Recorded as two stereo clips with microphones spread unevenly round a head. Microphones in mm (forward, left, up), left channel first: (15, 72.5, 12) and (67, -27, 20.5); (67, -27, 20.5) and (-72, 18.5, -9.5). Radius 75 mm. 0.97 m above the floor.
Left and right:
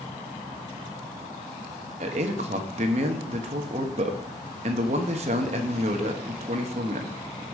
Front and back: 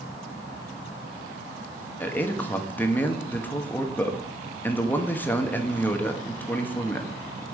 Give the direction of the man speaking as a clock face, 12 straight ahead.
3 o'clock.